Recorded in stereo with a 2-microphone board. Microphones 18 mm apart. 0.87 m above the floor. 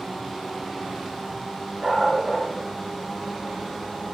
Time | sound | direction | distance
1.8 | a dog barking | 60° right (ahead or behind) | 3 m